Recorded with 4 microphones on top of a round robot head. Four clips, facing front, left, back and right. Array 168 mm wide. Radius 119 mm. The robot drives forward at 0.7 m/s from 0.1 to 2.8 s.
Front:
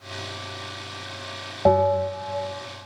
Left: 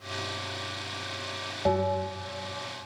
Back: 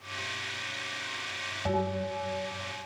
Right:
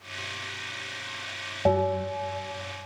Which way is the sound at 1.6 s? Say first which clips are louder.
Right 2 dB, front 12 dB; 5° right.